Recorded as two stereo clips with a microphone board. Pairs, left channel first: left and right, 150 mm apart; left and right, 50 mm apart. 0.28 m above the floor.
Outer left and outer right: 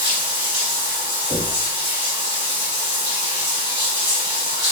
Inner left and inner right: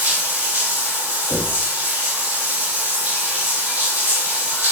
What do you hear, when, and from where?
0.0 s running water: 35° right (ahead or behind), 1.6 m
1.3 s knocking: 5° right (ahead or behind), 1.6 m